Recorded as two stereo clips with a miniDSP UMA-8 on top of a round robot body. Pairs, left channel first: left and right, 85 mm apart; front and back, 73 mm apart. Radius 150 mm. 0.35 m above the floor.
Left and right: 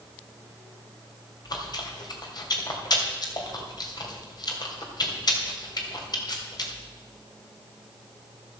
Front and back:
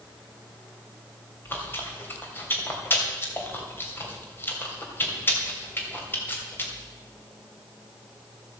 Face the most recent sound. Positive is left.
turn(degrees=60)